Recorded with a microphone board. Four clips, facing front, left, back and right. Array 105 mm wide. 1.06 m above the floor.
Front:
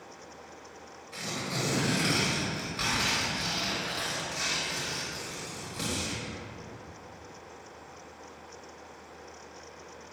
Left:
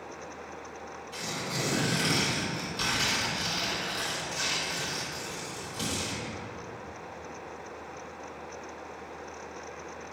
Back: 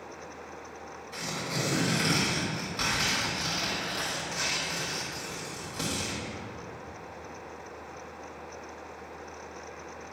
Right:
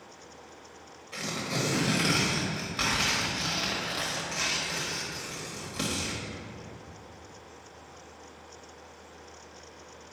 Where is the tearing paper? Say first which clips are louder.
Right 3 dB, back 1 dB; 95° right, 1.5 m.